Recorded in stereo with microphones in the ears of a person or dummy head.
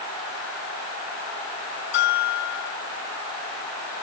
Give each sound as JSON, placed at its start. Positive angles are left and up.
{"t": 1.9, "sound": "a bell", "side_deg": 65, "distance_m": 3.0}